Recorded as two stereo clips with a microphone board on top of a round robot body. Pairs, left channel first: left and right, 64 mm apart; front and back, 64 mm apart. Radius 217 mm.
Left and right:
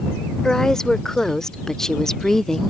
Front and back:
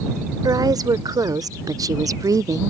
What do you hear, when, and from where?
0.4 s a woman speaking: 170° left